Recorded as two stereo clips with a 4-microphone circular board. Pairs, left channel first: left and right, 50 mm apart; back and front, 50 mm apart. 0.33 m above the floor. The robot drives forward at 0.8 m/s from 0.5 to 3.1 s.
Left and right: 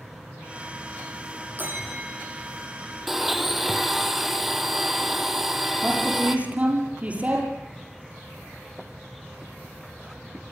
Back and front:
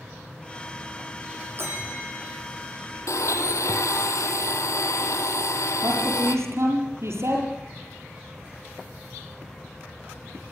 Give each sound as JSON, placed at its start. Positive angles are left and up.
{"t": 1.6, "sound": "a bell", "azimuth_deg": -40, "distance_m": 8.0}
{"t": 3.1, "sound": "a blender", "azimuth_deg": -175, "distance_m": 1.8}
{"t": 5.8, "sound": "a man speaking", "azimuth_deg": -25, "distance_m": 8.5}